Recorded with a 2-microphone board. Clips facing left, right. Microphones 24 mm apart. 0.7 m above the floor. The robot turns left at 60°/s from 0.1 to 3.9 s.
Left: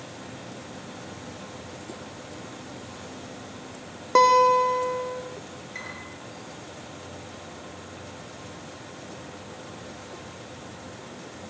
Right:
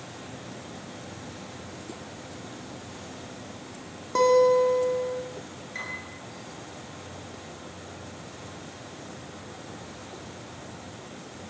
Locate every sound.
4.2 s a guitar: 35° left (ahead or behind), 1.4 m
5.8 s a piano: 5° right (ahead or behind), 9 m